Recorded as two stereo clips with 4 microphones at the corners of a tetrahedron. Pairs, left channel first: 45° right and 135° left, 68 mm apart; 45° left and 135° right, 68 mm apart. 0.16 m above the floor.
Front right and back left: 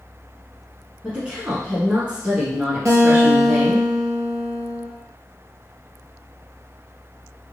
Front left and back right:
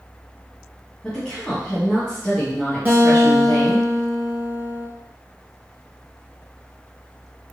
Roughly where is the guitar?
Behind.